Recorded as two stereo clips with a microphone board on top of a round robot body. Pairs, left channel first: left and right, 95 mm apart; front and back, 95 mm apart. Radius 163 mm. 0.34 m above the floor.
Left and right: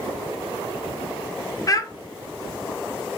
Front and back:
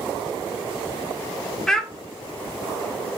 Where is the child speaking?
80° left, 0.6 m.